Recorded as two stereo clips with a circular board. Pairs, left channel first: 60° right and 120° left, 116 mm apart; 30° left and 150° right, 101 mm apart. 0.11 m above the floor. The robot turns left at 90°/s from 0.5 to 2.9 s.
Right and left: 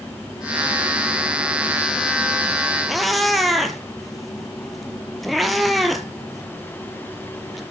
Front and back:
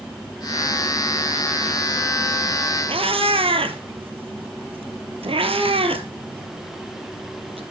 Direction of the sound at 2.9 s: 145° right.